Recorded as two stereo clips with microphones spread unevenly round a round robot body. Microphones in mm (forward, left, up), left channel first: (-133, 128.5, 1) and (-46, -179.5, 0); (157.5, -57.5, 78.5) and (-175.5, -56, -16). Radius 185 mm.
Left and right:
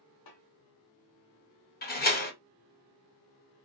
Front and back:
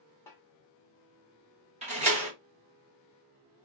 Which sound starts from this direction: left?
A snare drum, at 0.3 s.